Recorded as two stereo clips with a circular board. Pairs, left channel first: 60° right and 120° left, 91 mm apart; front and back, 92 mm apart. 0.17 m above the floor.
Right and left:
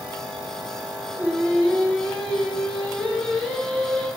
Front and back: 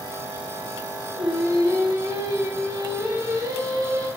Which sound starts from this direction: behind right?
Singing, at 1.1 s.